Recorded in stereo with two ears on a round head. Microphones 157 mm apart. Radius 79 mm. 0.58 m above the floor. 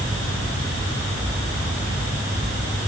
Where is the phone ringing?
No phone ringing in this recording.